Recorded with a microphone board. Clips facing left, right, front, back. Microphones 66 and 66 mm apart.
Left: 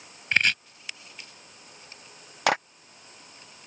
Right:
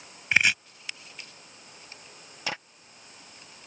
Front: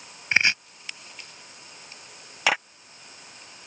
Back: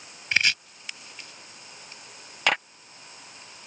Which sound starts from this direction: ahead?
Chopping, at 0.3 s.